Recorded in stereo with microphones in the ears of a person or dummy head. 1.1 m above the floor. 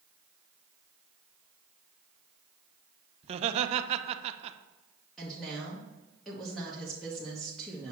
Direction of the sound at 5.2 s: Centre (ahead or behind).